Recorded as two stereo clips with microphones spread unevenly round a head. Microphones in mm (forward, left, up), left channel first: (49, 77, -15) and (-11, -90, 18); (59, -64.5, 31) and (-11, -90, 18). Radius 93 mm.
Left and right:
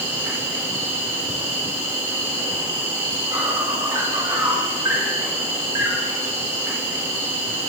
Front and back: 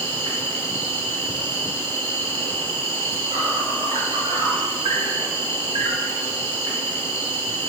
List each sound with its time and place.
0.0 s an insect: 170° left, 2 m